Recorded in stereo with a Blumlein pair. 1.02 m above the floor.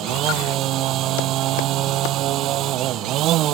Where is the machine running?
35° right.